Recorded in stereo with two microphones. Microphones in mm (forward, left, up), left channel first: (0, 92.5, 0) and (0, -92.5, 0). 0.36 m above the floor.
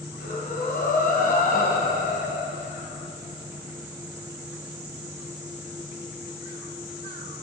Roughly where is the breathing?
Left.